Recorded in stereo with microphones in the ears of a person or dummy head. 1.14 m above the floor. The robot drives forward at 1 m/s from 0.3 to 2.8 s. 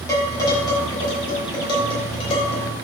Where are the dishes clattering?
20° left (ahead or behind), 5.5 m; by 2.7 s 30° left (ahead or behind), 3.5 m.